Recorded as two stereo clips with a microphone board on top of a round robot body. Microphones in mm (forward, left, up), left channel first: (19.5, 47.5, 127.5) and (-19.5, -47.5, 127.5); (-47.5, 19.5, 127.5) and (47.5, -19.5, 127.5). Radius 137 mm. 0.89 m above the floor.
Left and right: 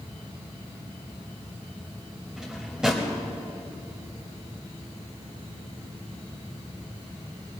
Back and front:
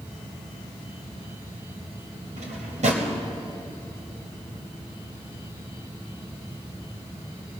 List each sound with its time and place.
2.4 s a drawer: 30° right, 1.1 m